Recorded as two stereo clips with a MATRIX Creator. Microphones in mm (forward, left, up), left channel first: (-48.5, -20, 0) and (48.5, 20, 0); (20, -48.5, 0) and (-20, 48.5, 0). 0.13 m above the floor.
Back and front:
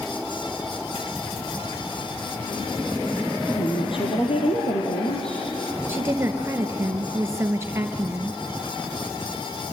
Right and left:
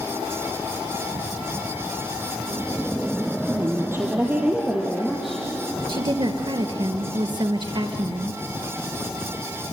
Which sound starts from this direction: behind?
A woman speaking, at 3.5 s.